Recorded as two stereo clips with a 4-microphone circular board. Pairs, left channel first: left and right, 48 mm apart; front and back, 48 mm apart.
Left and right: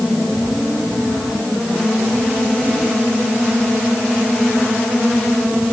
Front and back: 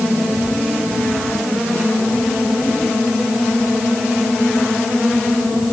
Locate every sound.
Only background noise.